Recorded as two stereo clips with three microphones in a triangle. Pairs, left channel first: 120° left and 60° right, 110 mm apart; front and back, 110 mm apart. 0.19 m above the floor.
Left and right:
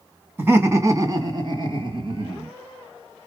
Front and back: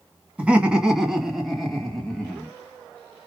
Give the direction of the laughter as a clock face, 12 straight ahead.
4 o'clock.